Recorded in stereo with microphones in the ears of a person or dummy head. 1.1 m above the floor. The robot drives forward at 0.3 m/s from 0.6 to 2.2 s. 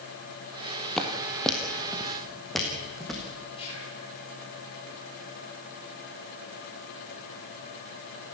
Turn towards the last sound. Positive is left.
turn(degrees=35)  # may be behind; listen again after turning